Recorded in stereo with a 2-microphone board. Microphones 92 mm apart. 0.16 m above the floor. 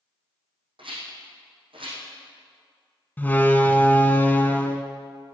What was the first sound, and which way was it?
A rattle, 65° right (ahead or behind).